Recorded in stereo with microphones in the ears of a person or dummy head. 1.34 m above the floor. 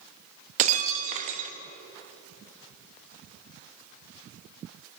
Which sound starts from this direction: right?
Breaking glass, at 0.6 s.